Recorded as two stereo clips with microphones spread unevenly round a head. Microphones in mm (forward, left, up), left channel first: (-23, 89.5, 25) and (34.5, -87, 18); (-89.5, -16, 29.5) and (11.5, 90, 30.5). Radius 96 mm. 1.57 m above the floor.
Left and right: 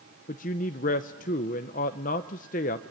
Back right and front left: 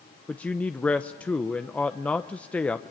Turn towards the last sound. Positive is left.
turn(degrees=145)